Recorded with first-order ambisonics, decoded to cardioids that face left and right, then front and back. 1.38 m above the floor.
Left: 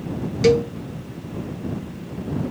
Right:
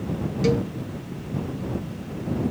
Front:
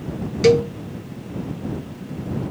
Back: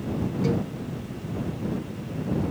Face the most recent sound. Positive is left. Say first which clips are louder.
# left 7 dB, front 16 dB
turn(degrees=30)